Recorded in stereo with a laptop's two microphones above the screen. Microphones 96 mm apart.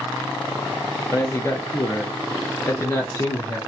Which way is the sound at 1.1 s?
30° left (ahead or behind).